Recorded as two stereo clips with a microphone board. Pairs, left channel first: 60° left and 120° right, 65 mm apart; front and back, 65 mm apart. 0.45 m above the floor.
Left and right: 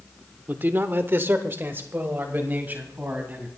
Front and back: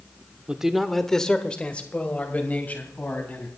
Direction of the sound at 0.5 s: 120° right.